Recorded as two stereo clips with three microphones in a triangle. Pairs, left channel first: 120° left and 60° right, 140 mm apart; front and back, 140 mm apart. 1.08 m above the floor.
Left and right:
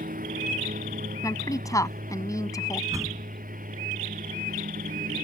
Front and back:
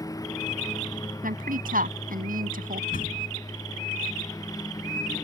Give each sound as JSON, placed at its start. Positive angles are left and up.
{"t": 0.0, "sound": "a lawn mower", "azimuth_deg": -65}
{"t": 1.2, "sound": "a woman speaking", "azimuth_deg": -175}
{"t": 2.9, "sound": "a door slam", "azimuth_deg": 10}